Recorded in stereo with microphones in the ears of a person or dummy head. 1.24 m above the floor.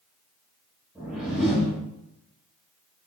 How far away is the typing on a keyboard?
No typing on a keyboard in this recording.